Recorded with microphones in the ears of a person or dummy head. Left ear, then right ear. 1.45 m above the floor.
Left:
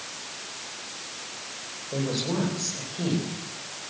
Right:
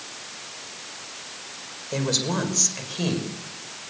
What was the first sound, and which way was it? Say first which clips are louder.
A woman speaking: right 4 dB; 75° right (ahead or behind).